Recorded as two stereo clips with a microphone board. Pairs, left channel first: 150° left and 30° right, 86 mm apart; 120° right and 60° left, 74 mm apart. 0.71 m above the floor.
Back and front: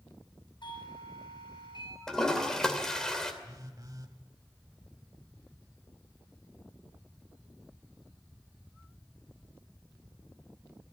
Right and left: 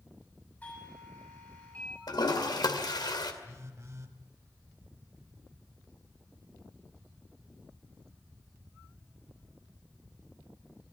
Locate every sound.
0.6 s a doorbell: 170° left, 6.5 m
2.1 s a toilet flushing: 125° right, 2.5 m
3.4 s a phone buzzing: 15° left, 1.8 m